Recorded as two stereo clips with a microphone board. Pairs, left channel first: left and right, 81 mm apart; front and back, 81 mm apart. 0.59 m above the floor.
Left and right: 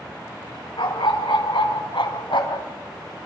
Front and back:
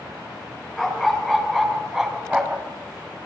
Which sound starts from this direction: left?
A dog barking, at 0.8 s.